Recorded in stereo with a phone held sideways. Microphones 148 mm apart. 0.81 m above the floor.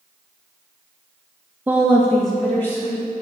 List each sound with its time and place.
1.7 s a woman speaking: 10° right (ahead or behind), 0.9 m; by 3.0 s 50° left (ahead or behind), 2.0 m